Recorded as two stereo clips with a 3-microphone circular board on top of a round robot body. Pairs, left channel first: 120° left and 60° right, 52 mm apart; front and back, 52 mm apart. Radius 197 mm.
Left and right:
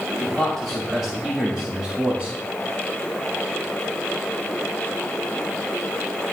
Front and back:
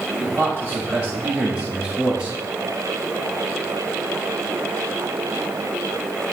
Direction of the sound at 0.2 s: 165° right.